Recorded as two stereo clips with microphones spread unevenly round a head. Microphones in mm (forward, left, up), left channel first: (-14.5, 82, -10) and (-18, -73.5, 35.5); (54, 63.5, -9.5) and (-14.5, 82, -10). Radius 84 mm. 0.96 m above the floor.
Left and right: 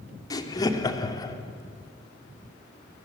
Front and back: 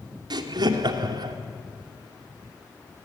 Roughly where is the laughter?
Behind left.